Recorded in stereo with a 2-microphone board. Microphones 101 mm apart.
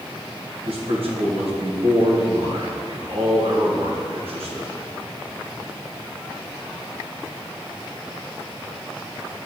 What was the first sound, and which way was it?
A man speaking, 70° right (ahead or behind).